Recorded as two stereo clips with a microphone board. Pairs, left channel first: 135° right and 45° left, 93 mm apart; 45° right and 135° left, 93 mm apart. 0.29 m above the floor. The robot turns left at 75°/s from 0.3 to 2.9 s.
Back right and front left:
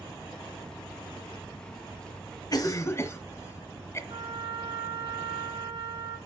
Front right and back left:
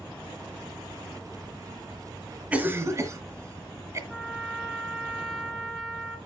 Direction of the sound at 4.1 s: 45° left.